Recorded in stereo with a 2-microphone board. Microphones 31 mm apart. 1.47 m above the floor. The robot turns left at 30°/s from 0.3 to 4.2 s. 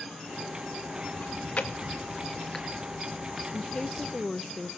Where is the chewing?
55° left (ahead or behind), 2.0 m; by 3.4 s 10° right (ahead or behind), 2.0 m.